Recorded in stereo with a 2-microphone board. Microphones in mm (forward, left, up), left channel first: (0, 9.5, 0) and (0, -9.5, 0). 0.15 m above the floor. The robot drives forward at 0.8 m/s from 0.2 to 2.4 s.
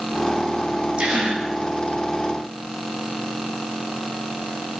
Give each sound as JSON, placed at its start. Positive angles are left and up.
{"t": 1.0, "sound": "a gasp", "side_deg": -55, "distance_m": 7.5}